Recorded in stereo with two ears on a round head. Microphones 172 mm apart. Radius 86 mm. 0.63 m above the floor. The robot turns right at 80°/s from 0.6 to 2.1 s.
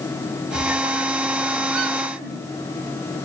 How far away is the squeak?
About 3.5 m.